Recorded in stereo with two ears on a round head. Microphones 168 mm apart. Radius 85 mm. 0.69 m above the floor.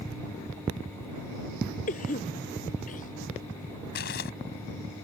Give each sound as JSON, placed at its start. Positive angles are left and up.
{"t": 1.9, "sound": "a cough", "side_deg": 40}
{"t": 4.0, "sound": "crumpling", "side_deg": 55}